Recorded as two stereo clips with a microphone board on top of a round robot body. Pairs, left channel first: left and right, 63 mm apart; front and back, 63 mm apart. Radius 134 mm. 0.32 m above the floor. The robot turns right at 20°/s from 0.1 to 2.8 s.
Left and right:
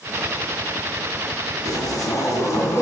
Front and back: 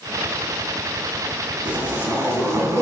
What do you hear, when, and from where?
1.6 s a zipper: 110° left, 2.5 m; by 2.8 s 135° left, 2.5 m